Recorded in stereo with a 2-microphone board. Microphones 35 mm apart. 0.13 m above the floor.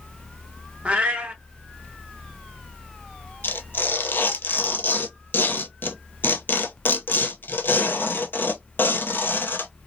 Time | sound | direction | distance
0.8 | a cat meowing | 35° right (ahead or behind) | 0.8 m
3.4 | tearing paper | 70° left (ahead or behind) | 0.6 m